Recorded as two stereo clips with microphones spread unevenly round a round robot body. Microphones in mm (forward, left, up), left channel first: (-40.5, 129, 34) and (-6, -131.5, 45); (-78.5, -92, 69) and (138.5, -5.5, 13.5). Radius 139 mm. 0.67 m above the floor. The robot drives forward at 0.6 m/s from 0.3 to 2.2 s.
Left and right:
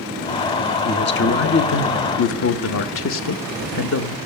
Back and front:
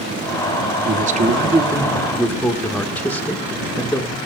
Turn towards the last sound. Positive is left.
turn(degrees=105)